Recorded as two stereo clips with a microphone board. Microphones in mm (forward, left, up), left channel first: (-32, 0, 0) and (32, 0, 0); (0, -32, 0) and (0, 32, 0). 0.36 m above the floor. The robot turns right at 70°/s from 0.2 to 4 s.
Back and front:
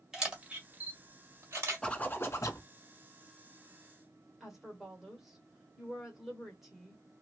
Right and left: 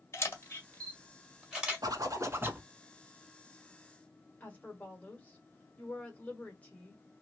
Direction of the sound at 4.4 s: 80° right.